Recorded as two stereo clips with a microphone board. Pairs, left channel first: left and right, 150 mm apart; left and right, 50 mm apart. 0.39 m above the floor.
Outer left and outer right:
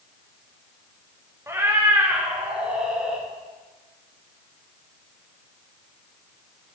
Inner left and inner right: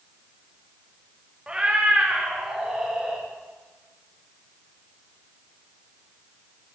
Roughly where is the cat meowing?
Centre.